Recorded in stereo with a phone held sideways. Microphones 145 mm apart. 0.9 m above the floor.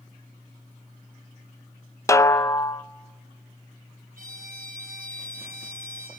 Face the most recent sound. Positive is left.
turn(degrees=-80)